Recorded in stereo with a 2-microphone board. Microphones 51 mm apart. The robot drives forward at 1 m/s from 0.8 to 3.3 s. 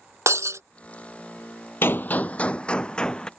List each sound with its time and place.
0.3 s breaking glass: 70° right (ahead or behind)
1.8 s a gunshot: 50° left (ahead or behind); by 3.3 s 15° left (ahead or behind)